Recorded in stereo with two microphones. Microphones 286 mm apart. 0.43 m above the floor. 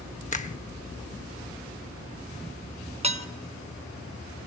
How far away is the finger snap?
About 0.7 m.